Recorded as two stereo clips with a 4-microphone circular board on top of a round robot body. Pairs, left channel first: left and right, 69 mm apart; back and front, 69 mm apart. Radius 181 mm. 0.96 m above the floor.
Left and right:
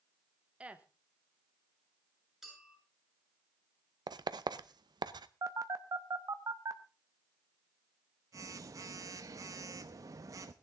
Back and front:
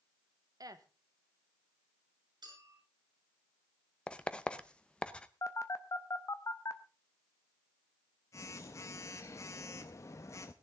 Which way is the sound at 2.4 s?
5° right.